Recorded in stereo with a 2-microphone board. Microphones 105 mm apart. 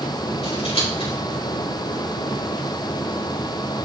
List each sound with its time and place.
0.4 s scissors: 70° left (ahead or behind), 4.5 m